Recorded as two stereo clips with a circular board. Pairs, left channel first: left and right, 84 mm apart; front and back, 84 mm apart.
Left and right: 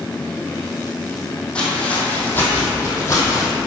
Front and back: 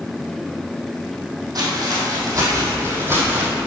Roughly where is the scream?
I don't hear a scream.